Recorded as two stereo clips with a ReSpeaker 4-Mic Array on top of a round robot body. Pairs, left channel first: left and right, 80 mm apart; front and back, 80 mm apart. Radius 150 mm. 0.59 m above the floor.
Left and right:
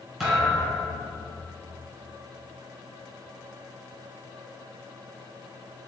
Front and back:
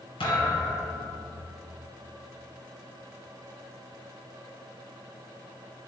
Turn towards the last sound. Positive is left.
turn(degrees=0)